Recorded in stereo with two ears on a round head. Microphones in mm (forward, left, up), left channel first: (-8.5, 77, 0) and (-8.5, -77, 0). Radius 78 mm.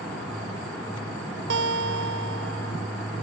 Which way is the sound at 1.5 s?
65° right (ahead or behind).